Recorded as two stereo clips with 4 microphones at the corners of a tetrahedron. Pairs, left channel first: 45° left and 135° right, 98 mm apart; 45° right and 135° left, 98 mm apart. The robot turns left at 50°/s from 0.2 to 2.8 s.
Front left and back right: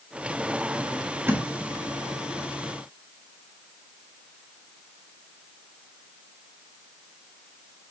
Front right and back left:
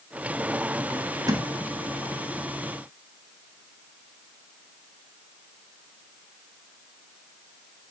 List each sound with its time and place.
1.3 s a thud: 165° left, 1.4 m; by 1.4 s 160° left, 1.4 m